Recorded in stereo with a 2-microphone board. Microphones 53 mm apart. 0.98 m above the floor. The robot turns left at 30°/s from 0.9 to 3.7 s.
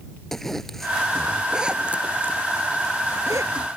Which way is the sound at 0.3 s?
5° left (ahead or behind).